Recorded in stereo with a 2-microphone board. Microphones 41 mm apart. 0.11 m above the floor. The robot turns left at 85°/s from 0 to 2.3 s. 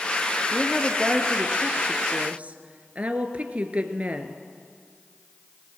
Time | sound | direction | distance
0.5 | a woman speaking | 40° left | 1.4 m